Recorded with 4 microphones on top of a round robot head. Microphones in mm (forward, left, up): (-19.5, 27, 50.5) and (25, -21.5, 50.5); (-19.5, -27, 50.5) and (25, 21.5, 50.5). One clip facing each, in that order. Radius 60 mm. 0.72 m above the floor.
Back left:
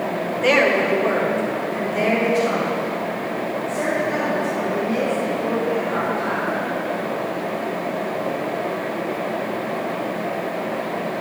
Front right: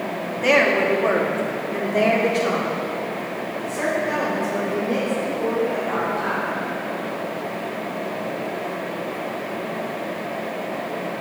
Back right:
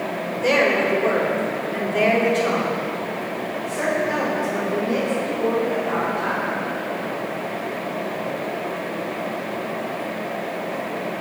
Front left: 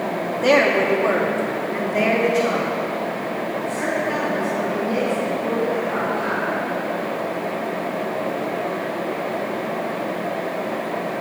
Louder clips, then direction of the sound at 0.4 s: Even, front left 2 dB; 35° left.